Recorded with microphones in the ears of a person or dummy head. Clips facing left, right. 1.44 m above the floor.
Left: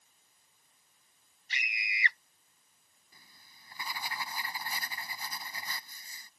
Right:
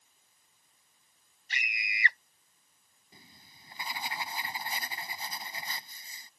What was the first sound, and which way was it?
A scream, 40° right (ahead or behind).